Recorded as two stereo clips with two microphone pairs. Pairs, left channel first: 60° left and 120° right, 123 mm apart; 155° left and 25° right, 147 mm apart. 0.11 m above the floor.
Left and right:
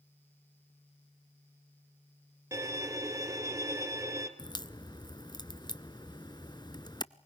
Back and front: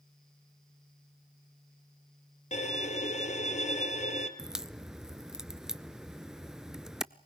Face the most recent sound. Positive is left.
turn(degrees=60)